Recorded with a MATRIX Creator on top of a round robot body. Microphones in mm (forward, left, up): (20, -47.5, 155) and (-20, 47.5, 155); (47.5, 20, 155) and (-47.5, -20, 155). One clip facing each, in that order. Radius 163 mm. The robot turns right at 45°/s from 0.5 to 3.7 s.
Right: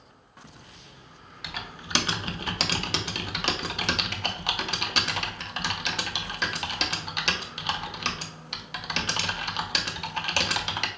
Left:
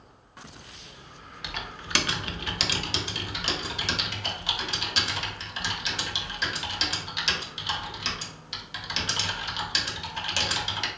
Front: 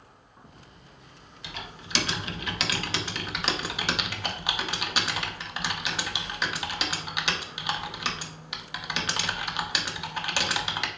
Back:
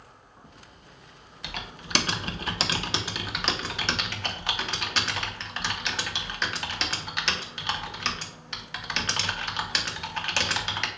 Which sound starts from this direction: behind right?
Typing on a keyboard, at 1.4 s.